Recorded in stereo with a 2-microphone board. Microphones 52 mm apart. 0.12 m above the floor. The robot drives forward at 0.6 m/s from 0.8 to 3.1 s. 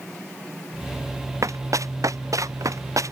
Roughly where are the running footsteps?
Right.